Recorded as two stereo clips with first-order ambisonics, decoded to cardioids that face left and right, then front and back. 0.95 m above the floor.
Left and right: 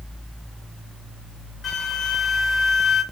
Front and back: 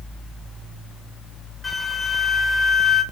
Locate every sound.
1.6 s a flute: 70° left, 0.7 m